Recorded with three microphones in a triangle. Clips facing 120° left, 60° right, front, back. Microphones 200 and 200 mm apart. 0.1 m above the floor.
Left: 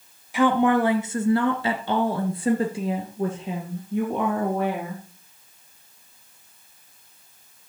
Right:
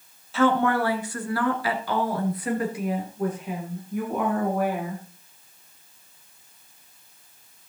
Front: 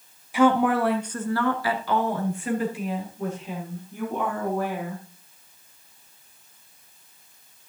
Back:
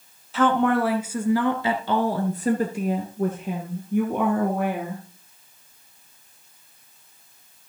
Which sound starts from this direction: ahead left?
A woman speaking, at 0.3 s.